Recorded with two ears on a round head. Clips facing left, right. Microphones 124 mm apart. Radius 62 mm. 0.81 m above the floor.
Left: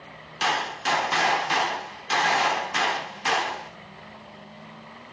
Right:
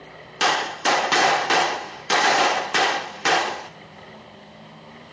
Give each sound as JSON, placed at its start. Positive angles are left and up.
{"t": 0.4, "sound": "a gunshot", "side_deg": -60, "distance_m": 0.6}